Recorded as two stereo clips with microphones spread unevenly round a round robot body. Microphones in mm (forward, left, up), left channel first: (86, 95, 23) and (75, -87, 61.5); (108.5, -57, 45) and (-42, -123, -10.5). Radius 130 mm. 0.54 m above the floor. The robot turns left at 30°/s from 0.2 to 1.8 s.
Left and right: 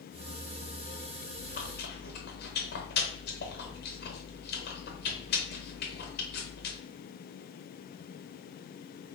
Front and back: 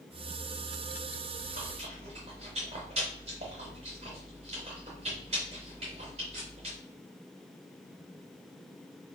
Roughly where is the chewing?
Behind left.